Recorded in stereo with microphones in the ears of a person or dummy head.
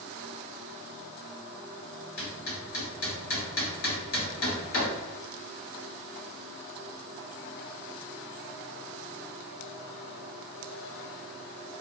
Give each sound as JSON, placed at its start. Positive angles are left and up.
{"t": 2.2, "sound": "hammering", "side_deg": 60, "distance_m": 1.5}